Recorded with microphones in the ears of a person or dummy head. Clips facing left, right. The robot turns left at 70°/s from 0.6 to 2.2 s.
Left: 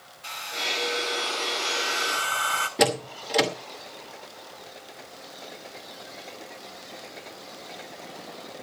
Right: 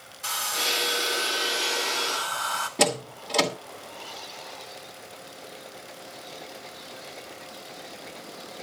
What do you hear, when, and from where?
0.2 s a hair dryer: 110° right, 1.5 m; by 2.7 s 140° left, 1.5 m
2.8 s a door slam: 5° left (ahead or behind), 2 m